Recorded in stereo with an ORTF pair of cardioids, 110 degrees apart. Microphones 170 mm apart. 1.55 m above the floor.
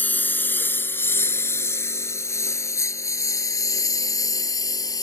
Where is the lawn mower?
10° left; by 5.0 s 20° left.